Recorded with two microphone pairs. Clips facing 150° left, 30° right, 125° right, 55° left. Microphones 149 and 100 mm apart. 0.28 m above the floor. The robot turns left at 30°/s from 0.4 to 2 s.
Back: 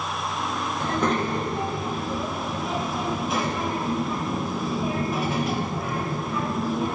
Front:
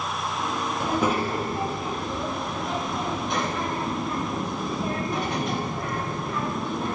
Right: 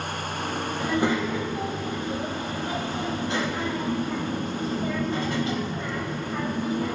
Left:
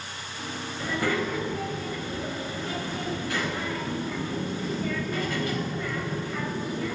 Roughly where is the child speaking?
Right.